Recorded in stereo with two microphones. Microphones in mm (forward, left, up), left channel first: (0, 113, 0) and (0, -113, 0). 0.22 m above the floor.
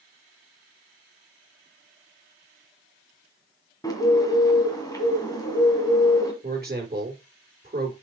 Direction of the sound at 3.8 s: 15° left (ahead or behind).